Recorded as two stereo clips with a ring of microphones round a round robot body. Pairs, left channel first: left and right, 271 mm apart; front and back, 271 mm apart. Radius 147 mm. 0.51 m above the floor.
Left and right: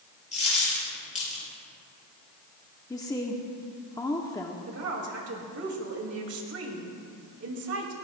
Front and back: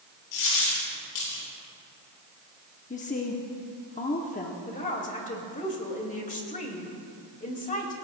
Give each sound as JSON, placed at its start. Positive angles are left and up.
{"t": 0.3, "sound": "a dropped coin", "azimuth_deg": 25, "distance_m": 5.0}
{"t": 2.9, "sound": "a woman speaking", "azimuth_deg": 25, "distance_m": 0.9}
{"t": 4.7, "sound": "a woman speaking", "azimuth_deg": -60, "distance_m": 2.5}